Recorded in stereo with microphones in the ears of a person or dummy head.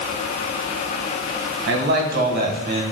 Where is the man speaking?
60° right (ahead or behind), 1.9 m; by 2.8 s 40° right (ahead or behind), 1.7 m.